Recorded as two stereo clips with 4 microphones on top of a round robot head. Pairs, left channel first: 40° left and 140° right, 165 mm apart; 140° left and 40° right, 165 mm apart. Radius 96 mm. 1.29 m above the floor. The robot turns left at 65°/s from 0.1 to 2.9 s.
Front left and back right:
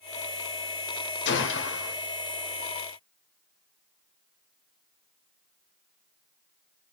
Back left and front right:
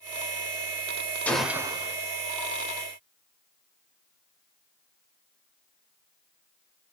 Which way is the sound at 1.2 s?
60° left.